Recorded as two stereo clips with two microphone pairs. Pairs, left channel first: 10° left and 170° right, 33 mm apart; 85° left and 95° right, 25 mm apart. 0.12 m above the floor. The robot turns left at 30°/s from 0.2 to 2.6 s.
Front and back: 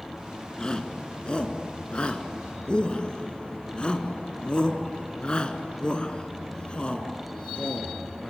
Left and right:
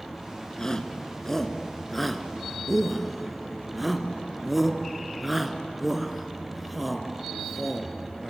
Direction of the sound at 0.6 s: 50° left.